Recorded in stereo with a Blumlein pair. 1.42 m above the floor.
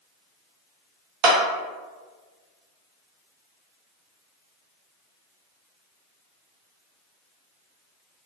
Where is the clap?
40° right, 0.8 m.